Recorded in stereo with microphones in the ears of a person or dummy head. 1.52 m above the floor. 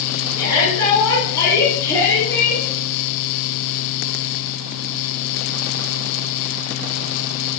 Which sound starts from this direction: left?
A shout, at 0.4 s.